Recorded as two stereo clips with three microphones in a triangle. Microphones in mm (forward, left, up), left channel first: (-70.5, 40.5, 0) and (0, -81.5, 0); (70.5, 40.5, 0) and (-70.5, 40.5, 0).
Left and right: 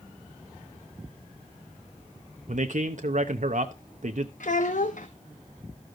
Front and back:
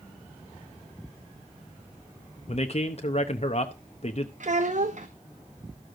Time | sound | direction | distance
2.5 | a man speaking | 35° right | 0.8 m
4.4 | a child speaking | 150° left | 0.8 m